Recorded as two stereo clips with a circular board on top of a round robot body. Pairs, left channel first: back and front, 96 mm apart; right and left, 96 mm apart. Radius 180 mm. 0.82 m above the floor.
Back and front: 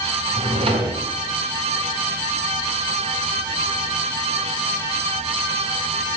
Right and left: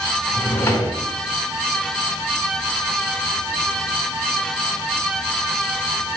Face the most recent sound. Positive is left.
turn(degrees=-25)